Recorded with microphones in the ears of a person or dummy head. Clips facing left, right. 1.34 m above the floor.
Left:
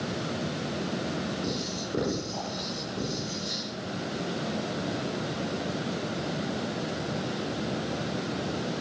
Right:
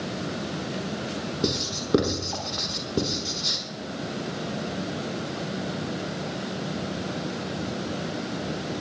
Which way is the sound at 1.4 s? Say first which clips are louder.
Right 4 dB; 80° right.